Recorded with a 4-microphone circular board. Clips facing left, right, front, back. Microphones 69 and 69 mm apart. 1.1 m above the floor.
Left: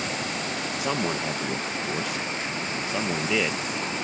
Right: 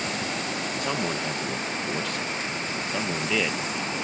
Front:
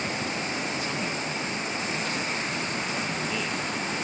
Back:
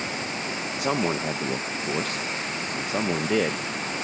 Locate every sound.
0.8 s a man speaking: 175° left